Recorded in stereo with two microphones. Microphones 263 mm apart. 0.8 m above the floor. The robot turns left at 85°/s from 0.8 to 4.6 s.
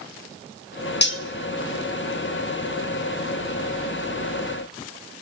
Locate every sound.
1.0 s cutlery clinking: 40° left (ahead or behind), 0.6 m; by 1.2 s 55° left (ahead or behind), 0.6 m